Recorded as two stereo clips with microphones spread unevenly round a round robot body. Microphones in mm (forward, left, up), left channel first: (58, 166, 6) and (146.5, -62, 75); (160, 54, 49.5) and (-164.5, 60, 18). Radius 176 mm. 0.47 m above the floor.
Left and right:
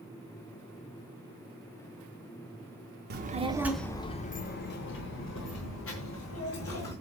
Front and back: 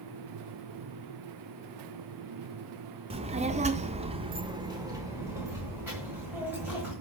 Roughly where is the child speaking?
Behind right.